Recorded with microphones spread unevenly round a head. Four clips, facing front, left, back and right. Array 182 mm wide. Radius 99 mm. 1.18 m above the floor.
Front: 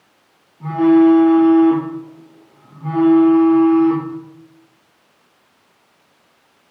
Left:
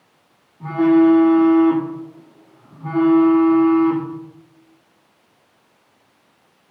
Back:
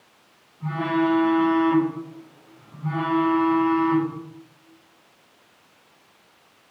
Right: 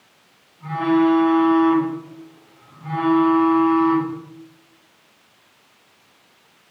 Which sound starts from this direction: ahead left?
A phone buzzing, at 0.6 s.